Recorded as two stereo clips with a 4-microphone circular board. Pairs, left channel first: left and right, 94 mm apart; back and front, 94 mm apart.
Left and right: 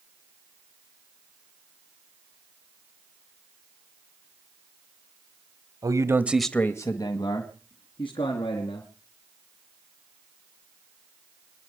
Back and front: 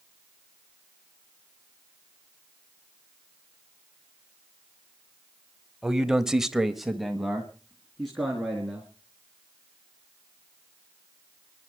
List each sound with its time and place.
5.8 s a man speaking: 80° right, 1.3 m; by 8.9 s 95° left, 4 m